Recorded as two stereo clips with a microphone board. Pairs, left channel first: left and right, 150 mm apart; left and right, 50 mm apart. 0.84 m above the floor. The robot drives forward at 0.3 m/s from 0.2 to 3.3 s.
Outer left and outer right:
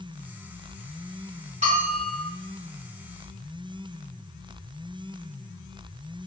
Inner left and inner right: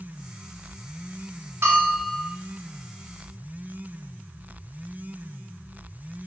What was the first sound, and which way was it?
A bell, 50° right (ahead or behind).